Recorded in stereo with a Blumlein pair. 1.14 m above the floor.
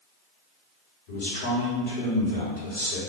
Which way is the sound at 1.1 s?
55° left.